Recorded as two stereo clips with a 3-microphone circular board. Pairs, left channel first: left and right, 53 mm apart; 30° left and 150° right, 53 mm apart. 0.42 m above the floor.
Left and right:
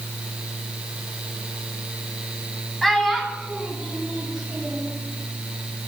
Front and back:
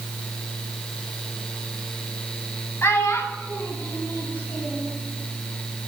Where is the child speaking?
5° left, 1.4 m; by 4.9 s 10° right, 4 m.